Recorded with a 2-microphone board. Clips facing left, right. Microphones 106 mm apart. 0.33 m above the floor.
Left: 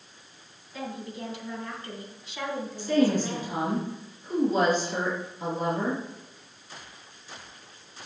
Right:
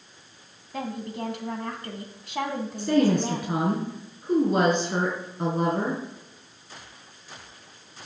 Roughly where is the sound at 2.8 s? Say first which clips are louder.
Right 2 dB; right.